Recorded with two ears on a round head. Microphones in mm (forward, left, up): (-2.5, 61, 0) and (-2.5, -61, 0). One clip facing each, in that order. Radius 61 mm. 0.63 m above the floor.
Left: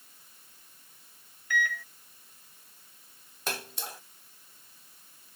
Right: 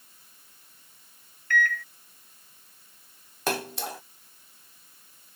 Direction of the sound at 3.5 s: 50° right (ahead or behind).